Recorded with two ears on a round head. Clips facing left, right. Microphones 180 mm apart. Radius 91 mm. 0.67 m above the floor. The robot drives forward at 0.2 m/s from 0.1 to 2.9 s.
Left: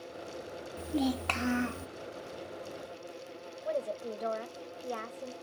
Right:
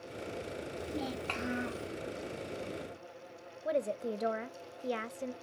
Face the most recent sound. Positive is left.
turn(degrees=-30)  # may be behind; listen again after turning